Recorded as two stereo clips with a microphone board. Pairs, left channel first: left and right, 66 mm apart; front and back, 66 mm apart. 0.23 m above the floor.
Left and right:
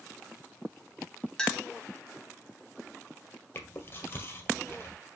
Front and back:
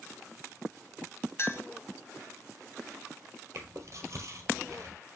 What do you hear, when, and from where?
1.4 s a clink: 15° left, 1.2 m
3.5 s chewing: 145° left, 1.8 m